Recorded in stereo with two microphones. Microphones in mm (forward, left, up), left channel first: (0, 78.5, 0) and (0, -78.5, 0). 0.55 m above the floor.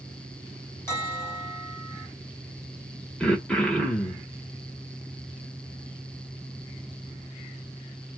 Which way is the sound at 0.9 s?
15° left (ahead or behind).